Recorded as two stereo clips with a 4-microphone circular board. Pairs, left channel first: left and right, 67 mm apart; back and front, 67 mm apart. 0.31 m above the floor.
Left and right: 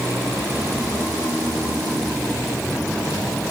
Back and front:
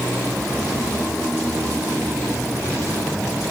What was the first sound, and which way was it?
Only background noise.